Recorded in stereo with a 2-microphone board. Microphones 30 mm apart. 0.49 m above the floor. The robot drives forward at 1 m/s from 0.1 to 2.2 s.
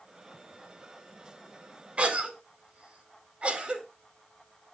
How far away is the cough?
About 1.5 m.